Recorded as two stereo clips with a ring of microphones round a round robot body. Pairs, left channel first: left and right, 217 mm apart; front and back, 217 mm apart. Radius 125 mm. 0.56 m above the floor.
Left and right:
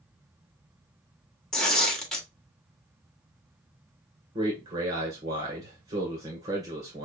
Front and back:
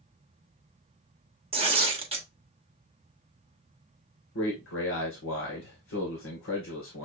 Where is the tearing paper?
175° left, 1.2 m.